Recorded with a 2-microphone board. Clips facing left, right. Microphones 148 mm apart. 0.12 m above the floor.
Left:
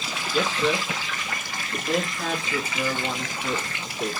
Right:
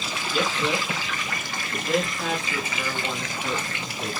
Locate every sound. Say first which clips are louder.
0.3 s a man speaking: left 2 dB; 15° right (ahead or behind), 1.6 m; by 4.1 s 5° left (ahead or behind), 2 m